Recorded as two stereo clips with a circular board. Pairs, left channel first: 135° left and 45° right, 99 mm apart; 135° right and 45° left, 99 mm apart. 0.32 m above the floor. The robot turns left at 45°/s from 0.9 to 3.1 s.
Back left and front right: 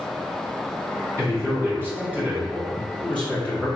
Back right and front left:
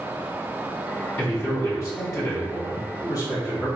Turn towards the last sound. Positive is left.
turn(degrees=-155)